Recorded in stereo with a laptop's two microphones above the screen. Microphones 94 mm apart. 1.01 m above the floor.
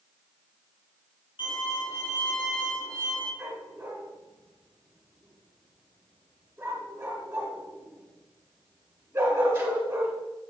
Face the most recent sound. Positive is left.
turn(degrees=-30)  # may be behind; listen again after turning